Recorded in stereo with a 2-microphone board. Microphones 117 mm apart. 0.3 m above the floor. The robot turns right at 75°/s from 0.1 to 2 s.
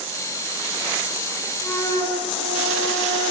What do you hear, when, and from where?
1.6 s a flute: 10° left (ahead or behind), 2.5 m; by 3.3 s 35° left (ahead or behind), 2.5 m